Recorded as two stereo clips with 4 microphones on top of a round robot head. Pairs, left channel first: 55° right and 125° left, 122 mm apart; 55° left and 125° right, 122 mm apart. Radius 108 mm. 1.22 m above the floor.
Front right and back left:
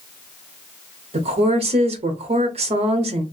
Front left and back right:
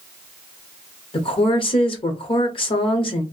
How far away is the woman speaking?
About 0.8 m.